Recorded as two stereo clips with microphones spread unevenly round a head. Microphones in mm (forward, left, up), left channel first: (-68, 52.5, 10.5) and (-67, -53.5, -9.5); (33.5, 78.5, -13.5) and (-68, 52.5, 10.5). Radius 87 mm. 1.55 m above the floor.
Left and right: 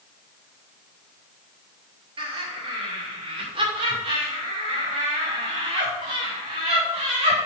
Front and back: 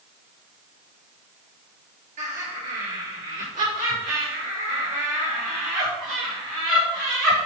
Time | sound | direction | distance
2.2 | laughter | 110° right | 4 m